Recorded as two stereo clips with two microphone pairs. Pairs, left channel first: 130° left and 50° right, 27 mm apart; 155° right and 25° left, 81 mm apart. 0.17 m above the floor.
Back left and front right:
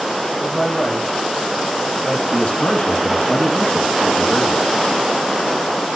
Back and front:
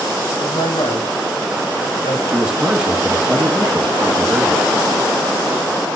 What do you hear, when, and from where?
0.4 s a man speaking: 165° right, 8 m
2.3 s a man speaking: 100° left, 2.5 m